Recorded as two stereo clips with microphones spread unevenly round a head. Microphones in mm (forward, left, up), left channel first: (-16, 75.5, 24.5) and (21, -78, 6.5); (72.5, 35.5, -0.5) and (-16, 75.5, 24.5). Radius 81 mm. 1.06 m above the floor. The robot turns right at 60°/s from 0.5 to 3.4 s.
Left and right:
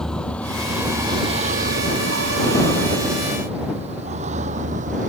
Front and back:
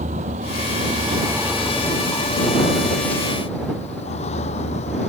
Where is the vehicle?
170° right; by 5.1 s 35° right.